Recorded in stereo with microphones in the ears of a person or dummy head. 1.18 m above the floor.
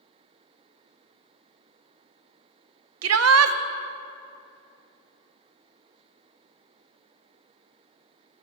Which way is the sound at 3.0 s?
75° right (ahead or behind).